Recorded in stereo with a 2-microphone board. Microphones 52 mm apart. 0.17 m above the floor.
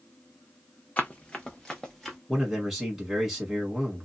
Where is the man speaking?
5° right (ahead or behind), 1.5 m.